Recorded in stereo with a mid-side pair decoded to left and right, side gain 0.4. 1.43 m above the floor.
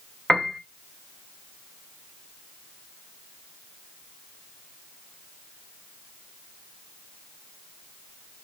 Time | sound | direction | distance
0.3 | a piano | 5° right | 0.6 m